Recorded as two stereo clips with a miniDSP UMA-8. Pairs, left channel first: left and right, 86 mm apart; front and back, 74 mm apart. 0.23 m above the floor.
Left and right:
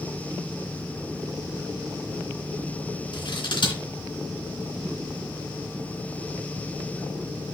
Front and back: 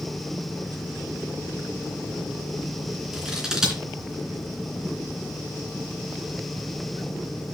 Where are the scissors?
95° left, 3 m.